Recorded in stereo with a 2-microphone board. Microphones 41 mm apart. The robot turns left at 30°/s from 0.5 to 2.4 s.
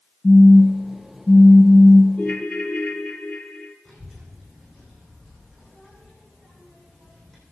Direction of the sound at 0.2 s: 110° left.